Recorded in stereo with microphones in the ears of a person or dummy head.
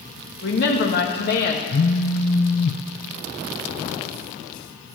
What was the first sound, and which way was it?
A woman speaking, 55° left (ahead or behind).